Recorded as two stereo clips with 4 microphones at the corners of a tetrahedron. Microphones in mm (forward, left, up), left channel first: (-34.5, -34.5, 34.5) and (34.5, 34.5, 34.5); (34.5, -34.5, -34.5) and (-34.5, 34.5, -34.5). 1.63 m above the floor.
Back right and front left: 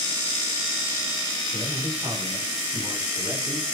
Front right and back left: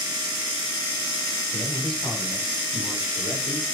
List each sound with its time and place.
1.5 s a man speaking: 15° right, 8 m; by 3.6 s 5° right, 6.5 m